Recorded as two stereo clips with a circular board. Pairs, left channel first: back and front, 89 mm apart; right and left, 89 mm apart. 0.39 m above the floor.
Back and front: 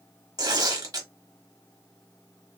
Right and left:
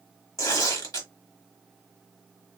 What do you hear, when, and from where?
0.4 s tearing paper: 45° right, 1.0 m